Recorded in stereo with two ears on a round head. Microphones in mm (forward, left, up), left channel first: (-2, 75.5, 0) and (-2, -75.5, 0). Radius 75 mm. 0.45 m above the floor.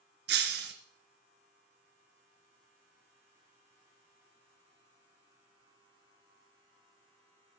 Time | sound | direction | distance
0.3 | breaking glass | 65° right (ahead or behind) | 2.0 m